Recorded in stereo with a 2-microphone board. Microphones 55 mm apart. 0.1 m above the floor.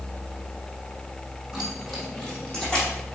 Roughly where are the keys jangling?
Centre.